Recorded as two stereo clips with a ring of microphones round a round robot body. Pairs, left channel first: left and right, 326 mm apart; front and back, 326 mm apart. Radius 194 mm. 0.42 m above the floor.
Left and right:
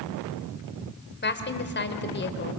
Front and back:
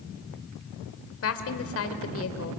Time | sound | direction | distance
1.2 | a woman speaking | 40° left | 2.5 m